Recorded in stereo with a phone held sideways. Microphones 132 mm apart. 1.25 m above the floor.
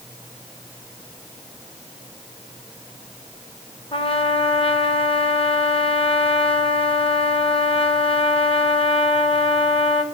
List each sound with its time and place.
3.9 s a trumpet: 45° left (ahead or behind), 1.1 m